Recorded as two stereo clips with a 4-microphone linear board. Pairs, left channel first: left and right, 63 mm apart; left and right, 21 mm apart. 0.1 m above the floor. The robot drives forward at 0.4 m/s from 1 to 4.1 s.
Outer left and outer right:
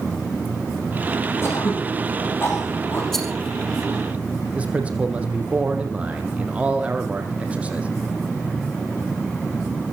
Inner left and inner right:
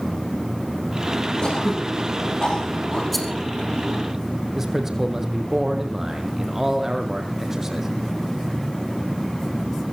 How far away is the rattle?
About 3 m.